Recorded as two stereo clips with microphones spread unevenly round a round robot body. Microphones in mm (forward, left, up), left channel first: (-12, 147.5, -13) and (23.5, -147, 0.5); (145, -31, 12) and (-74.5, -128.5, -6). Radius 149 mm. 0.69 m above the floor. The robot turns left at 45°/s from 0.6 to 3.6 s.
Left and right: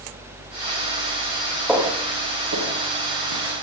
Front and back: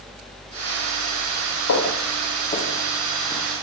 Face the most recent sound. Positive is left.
turn(degrees=-80)